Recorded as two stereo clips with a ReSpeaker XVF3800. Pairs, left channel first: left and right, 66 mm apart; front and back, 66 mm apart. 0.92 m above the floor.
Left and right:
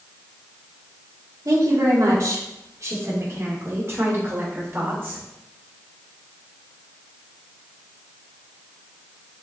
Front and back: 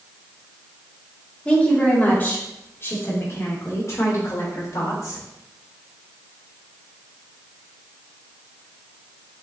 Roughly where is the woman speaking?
Right.